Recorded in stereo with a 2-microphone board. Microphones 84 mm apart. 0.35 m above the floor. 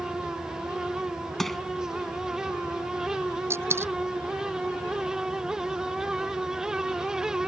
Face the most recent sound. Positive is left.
turn(degrees=-30)  # may be behind; listen again after turning